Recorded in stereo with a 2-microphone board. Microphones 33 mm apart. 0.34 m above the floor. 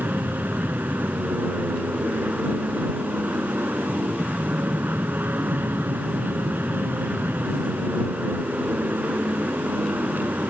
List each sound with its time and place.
0.0 s an aircraft: 70° right (ahead or behind)